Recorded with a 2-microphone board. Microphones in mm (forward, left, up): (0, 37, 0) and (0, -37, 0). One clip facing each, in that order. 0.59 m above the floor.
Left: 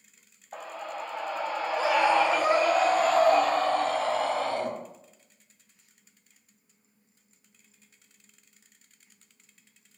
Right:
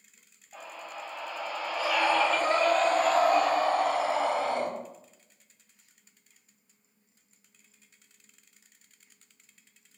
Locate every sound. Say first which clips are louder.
0.5 s a scream: left 5 dB; 60° left (ahead or behind), 2.5 m; by 4.7 s 20° right (ahead or behind), 4 m